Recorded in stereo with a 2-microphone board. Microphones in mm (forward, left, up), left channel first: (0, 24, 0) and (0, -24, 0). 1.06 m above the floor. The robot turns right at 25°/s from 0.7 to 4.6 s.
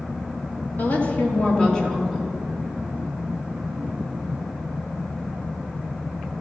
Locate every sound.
0.8 s a woman speaking: 140° left, 3 m; by 2.3 s straight behind, 3 m